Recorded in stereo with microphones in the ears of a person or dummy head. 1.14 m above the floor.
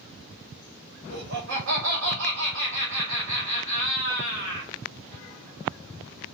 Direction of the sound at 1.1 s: 75° right (ahead or behind).